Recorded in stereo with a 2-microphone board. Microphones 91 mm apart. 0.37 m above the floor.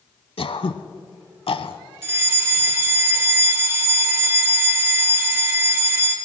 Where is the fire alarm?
25° right (ahead or behind), 1.9 m.